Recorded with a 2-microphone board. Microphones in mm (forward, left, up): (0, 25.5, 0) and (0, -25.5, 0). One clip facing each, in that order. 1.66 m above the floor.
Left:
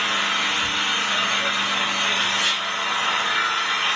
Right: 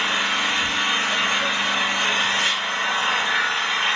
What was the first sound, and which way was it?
An engine running, 45° right (ahead or behind).